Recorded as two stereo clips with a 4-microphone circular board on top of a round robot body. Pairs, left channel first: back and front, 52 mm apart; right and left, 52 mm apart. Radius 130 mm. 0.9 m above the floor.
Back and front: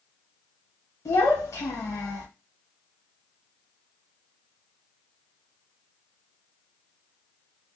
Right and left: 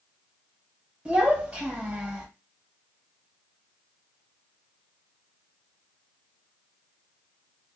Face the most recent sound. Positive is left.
turn(degrees=160)